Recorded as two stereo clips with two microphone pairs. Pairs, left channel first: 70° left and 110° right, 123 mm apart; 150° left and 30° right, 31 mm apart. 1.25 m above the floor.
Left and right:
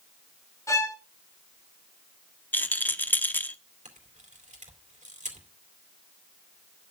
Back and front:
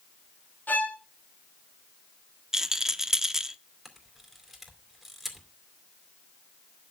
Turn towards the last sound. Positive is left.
turn(degrees=-115)